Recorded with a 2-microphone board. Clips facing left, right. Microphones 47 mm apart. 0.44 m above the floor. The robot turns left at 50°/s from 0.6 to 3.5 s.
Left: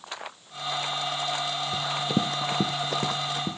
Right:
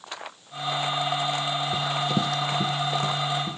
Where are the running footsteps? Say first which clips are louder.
Even; 15° right (ahead or behind), 0.6 m; by 3.6 s 65° left (ahead or behind), 1.9 m.